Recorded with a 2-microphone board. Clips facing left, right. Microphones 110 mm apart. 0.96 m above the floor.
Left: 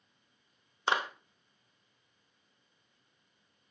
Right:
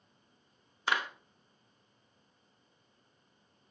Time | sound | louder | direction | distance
0.9 | a clap | left 2 dB | 25° left (ahead or behind) | 1.0 m